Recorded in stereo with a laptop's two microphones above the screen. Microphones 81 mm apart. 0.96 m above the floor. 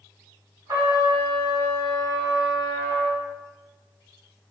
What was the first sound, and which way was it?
A trumpet, 65° right (ahead or behind).